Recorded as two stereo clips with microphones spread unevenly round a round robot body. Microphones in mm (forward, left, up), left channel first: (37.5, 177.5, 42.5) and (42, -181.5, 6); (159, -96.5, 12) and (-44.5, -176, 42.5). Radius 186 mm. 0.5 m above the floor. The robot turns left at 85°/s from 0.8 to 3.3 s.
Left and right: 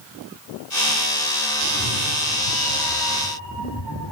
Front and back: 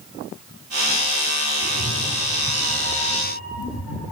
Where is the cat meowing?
Straight behind, 2.5 m; by 4.1 s 40° left, 2.5 m.